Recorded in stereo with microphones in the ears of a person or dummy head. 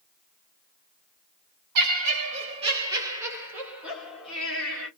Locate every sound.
1.8 s laughter: 50° right (ahead or behind), 1.0 m; by 4.9 s centre (ahead or behind), 2.0 m